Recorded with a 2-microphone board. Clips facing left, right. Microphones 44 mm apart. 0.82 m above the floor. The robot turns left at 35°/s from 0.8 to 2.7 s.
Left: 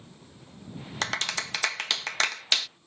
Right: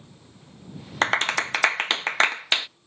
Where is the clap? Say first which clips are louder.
Right 8 dB; 35° right (ahead or behind); by 2.7 s 25° right (ahead or behind).